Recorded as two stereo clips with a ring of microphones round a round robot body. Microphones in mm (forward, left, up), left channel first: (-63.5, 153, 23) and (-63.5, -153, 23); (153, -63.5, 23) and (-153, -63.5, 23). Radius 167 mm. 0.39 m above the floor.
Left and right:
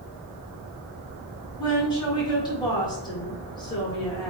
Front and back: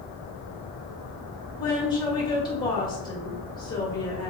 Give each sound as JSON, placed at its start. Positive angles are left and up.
{"t": 1.6, "sound": "a woman speaking", "azimuth_deg": 45, "distance_m": 1.4}